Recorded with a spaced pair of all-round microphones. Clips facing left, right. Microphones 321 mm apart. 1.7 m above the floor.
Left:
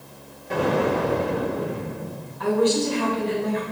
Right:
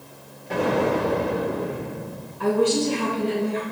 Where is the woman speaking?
35° right (ahead or behind), 2 m.